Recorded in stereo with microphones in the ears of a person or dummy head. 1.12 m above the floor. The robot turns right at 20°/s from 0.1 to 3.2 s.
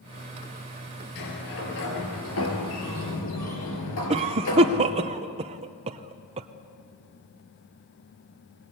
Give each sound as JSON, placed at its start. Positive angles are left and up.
{"t": 1.1, "sound": "a sliding door", "azimuth_deg": 55, "distance_m": 5.0}
{"t": 4.1, "sound": "a cough", "side_deg": -30, "distance_m": 0.8}